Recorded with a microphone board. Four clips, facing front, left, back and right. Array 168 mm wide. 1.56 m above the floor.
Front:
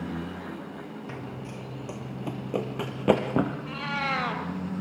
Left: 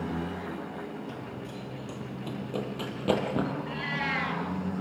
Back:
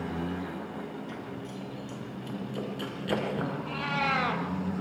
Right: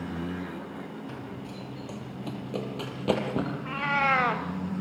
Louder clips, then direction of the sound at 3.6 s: Right 6 dB, back 1 dB; 90° right.